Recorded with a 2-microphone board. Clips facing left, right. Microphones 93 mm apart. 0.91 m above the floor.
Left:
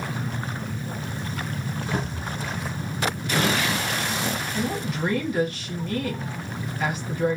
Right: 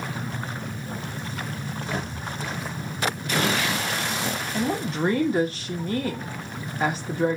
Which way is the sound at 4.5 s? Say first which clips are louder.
Right 2 dB; 35° right (ahead or behind).